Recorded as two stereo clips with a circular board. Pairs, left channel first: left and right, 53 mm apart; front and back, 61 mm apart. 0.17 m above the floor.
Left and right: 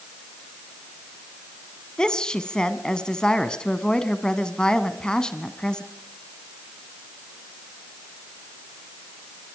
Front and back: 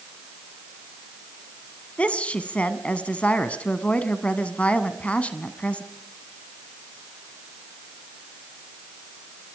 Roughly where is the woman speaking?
Ahead left.